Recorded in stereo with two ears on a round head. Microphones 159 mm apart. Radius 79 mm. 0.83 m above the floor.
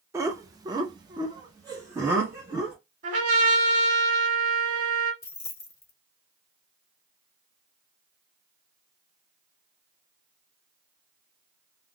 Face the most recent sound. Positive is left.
turn(degrees=15)  # may be behind; listen again after turning